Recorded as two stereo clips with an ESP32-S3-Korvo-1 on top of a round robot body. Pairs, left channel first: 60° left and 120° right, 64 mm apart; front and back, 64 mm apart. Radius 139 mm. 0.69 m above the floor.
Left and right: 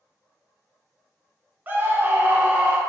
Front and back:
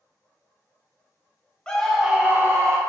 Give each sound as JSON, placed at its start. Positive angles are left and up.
{"t": 1.7, "sound": "a scream", "azimuth_deg": -75, "distance_m": 0.7}